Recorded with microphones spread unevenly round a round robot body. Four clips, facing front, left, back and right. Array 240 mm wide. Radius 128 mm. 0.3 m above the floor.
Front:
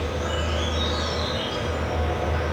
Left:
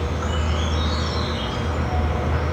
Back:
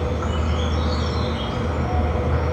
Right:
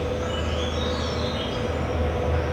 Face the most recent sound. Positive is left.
turn(degrees=140)